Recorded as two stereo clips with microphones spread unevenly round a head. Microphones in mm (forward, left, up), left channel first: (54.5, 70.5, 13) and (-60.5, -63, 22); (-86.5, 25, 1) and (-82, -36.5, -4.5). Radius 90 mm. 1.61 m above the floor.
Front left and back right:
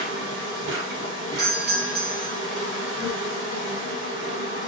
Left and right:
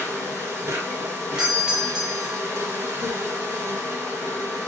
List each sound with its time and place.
0.0 s an insect: 120° right, 1.6 m
1.4 s a doorbell: 160° right, 1.1 m